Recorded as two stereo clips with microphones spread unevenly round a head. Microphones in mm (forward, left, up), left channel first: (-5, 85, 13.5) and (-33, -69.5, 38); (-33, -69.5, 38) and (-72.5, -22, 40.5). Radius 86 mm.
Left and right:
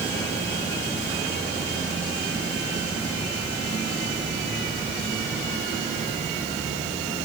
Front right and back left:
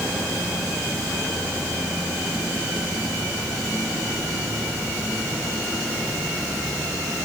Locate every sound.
Only background noise.